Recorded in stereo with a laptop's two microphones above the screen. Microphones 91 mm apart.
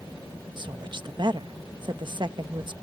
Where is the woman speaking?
55° right (ahead or behind).